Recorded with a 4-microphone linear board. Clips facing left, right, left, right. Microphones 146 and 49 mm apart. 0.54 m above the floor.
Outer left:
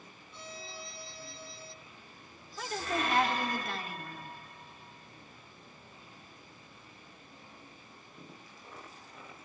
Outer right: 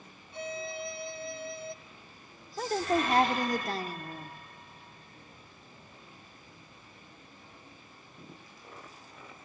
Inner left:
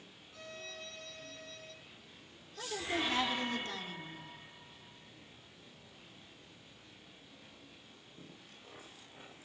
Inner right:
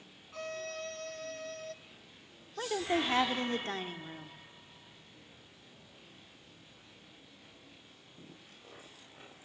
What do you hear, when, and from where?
0.3 s a violin: 70° right (ahead or behind), 1.4 m
2.6 s a woman speaking: 40° right (ahead or behind), 1.3 m